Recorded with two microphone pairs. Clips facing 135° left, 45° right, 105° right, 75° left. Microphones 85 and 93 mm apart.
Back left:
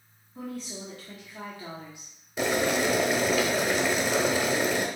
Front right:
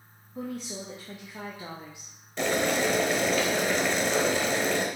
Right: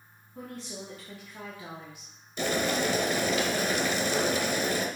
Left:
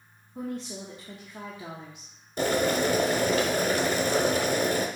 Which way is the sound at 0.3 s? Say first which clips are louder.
Front right 2 dB, left 6 dB; 20° left.